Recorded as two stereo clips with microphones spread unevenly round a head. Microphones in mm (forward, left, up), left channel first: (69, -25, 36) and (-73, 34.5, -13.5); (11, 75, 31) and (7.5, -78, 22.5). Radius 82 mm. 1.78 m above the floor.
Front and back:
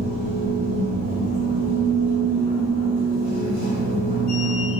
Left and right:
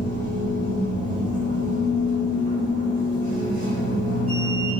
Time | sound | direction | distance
0.0 | a machine running | 60° right | 1.1 m